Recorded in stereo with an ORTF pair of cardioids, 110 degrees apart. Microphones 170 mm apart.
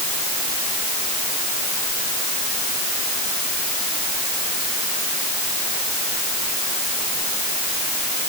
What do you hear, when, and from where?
Only background noise.